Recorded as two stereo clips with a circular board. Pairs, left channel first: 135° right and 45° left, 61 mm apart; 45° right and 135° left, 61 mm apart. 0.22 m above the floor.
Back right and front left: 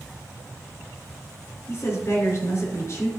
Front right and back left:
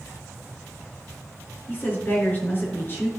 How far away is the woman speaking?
About 3.5 m.